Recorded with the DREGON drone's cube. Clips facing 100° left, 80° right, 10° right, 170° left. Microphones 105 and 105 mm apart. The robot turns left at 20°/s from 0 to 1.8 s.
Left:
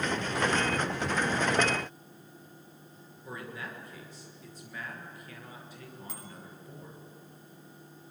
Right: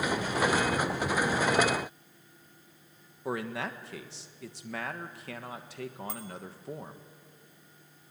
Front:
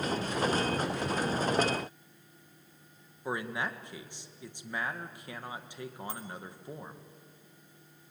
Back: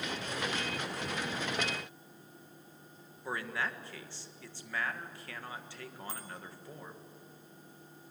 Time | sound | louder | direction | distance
3.2 | a man speaking | right 8 dB, front 2 dB | 85° right | 1.6 m
6.1 | a bicycle bell | right 6 dB, front 3 dB | 10° left | 6 m